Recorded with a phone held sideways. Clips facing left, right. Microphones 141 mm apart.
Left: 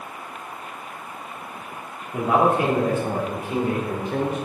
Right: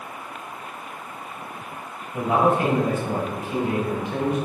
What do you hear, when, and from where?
2.1 s a man speaking: 70° left (ahead or behind), 2.5 m; by 4.4 s 35° left (ahead or behind), 3 m